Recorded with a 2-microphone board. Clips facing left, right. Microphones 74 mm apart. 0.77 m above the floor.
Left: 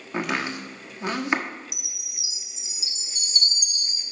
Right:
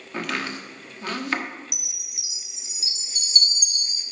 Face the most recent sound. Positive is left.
turn(degrees=-60)  # may be behind; listen again after turning